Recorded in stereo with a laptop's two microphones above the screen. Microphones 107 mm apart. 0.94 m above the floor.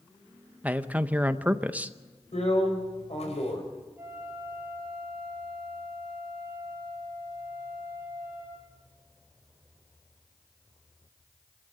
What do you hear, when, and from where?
0.6 s a man speaking: 15° right (ahead or behind), 0.7 m
2.3 s a drill: 75° left (ahead or behind), 5 m
4.0 s a flute: 20° right (ahead or behind), 5 m